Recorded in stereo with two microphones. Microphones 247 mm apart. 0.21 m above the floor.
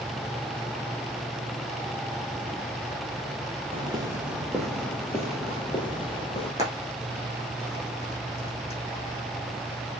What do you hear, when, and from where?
3.7 s footsteps: 25° right (ahead or behind), 2 m; by 6.5 s 20° left (ahead or behind), 5 m
6.6 s frying: 25° left (ahead or behind), 6.5 m